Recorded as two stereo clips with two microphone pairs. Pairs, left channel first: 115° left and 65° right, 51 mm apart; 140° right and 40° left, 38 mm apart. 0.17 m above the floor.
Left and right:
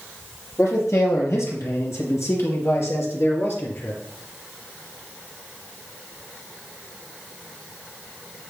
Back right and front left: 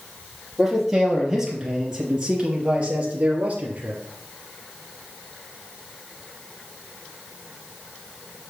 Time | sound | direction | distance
0.6 | a man speaking | 120° left | 5 m